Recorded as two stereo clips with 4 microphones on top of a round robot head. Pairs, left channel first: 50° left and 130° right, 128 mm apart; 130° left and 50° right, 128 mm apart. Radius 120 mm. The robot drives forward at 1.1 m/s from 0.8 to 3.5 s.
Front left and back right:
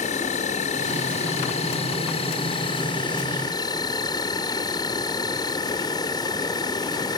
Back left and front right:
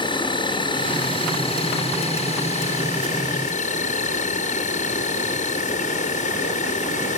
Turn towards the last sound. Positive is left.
turn(degrees=110)